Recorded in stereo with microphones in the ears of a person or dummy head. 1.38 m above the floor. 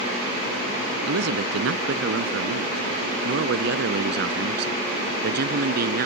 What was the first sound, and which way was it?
A man speaking, 75° right (ahead or behind).